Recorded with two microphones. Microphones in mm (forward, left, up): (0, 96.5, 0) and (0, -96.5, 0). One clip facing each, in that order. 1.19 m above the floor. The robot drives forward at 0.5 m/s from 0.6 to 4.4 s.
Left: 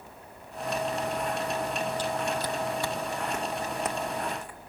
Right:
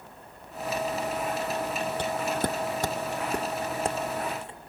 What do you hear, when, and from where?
2.0 s footsteps: 60° right (ahead or behind); by 4.6 s 25° right (ahead or behind)